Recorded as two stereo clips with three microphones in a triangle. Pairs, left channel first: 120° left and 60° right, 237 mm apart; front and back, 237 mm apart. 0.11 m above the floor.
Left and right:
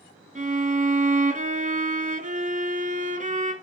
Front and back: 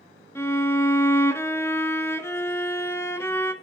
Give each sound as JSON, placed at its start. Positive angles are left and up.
{"t": 0.3, "sound": "a violin", "azimuth_deg": -70, "distance_m": 0.6}